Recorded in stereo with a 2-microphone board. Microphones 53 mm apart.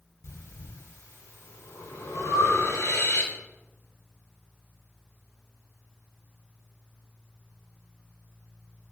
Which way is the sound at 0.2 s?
70° left (ahead or behind).